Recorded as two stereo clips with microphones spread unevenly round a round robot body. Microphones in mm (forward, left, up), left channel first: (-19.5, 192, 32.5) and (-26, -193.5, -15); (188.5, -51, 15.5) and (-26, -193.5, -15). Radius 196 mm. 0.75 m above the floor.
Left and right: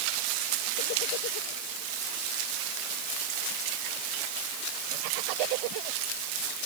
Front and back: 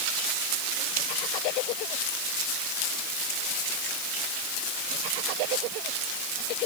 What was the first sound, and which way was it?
Only background noise.